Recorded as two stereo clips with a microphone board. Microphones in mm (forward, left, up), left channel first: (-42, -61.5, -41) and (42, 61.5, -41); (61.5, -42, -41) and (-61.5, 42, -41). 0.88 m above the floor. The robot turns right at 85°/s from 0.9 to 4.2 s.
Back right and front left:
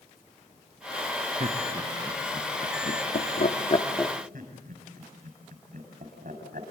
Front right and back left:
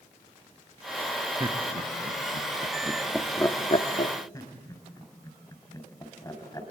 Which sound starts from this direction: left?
Laughter, at 1.4 s.